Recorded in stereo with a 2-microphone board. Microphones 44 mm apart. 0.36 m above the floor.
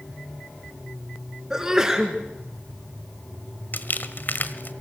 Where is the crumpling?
45° left (ahead or behind), 1.3 m.